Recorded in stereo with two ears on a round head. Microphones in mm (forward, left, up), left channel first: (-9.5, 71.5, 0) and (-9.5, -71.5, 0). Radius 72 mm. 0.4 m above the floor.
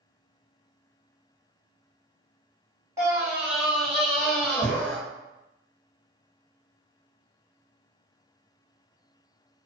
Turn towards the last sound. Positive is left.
turn(degrees=15)  # may be behind; listen again after turning